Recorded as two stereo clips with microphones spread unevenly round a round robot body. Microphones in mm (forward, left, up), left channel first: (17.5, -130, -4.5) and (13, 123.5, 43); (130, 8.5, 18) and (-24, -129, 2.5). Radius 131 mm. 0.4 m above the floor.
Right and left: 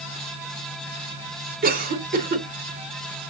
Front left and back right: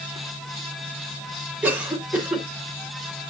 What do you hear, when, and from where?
1.6 s a cough: 145° left, 1.5 m